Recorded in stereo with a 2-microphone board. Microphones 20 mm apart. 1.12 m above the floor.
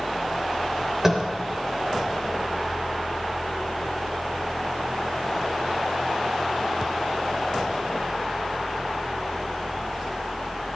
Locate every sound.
1.0 s tapping: 20° right (ahead or behind), 3.5 m